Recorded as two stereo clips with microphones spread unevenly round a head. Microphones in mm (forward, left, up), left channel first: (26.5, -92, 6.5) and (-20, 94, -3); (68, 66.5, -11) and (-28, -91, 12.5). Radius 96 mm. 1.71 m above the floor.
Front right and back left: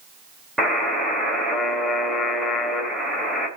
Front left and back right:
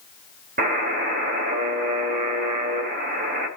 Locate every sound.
0.6 s a buzzer: 165° right, 3.5 m